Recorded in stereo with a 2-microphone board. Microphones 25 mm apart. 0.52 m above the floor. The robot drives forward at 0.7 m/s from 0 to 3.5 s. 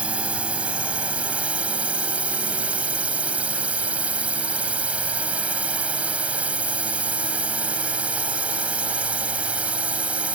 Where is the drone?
60° right (ahead or behind); by 10.4 s 70° right (ahead or behind).